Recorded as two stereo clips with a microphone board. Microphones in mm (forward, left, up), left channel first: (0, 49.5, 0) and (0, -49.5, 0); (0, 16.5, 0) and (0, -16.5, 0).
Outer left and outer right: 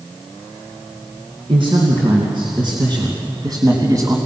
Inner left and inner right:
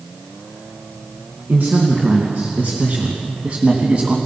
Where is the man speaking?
60° right (ahead or behind), 3.5 m; by 4.2 s 35° right (ahead or behind), 2.5 m.